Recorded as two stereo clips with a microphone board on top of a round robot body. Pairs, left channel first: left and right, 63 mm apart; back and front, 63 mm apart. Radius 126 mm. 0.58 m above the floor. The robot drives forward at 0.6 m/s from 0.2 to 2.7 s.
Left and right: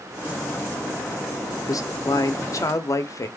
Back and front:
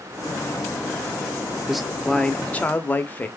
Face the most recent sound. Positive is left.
turn(degrees=120)